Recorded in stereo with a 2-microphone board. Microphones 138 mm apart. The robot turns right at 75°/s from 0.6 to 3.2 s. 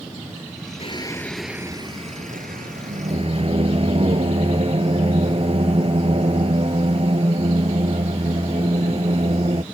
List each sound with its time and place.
0.8 s singing: 135° left; by 9.6 s 45° right